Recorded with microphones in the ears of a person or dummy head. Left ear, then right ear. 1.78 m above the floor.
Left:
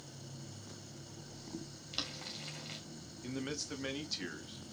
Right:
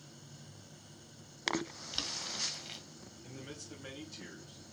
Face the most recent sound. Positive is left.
turn(degrees=60)  # may be behind; listen again after turning